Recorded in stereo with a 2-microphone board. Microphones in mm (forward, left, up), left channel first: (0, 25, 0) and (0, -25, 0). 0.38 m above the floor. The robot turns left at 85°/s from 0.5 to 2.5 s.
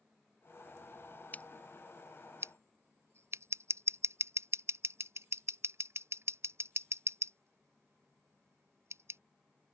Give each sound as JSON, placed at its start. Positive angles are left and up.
{"t": 1.3, "sound": "scissors", "side_deg": 35}